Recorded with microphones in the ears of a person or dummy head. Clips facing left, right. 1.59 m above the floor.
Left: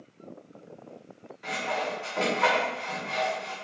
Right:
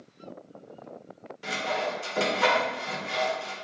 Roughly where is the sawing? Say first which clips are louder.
Right 1 dB; right.